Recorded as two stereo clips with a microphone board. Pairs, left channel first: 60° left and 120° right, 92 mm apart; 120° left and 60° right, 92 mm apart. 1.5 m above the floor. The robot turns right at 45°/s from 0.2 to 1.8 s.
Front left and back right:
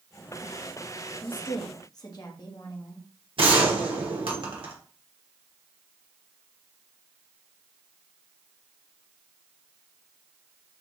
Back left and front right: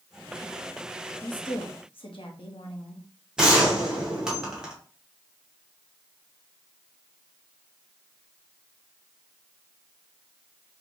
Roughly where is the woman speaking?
Left.